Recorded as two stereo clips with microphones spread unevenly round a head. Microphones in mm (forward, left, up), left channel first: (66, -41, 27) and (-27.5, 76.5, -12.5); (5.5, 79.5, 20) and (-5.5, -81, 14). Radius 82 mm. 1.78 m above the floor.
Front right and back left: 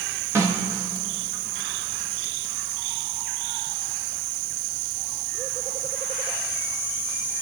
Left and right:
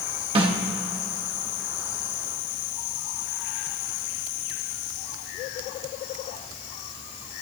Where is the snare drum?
155° right, 1.3 m.